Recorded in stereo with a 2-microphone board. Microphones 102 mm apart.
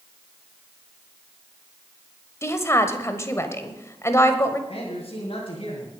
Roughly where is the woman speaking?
Left.